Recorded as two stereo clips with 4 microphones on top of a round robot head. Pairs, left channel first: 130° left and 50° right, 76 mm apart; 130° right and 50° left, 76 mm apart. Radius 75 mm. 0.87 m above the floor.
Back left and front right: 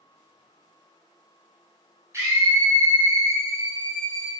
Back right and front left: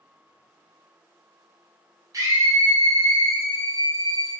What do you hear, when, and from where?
2.1 s a scream: 5° left, 2.5 m